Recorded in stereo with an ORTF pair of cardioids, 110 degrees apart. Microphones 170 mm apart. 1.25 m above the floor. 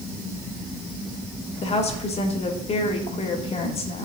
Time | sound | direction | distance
1.6 | a woman speaking | 40° left | 2.5 m